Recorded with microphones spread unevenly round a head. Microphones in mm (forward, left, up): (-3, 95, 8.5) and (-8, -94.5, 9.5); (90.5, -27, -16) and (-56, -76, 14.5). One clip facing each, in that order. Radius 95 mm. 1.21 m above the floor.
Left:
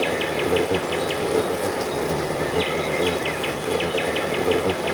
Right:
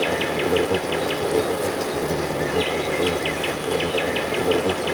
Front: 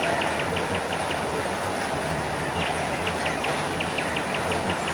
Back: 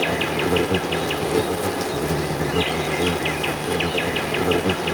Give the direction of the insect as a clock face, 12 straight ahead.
6 o'clock.